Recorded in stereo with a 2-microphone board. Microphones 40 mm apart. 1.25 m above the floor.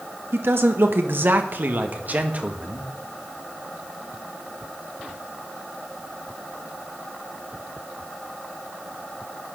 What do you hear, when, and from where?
0.3 s a man speaking: 75° right (ahead or behind), 1.6 m; by 2.9 s 35° right (ahead or behind), 1.9 m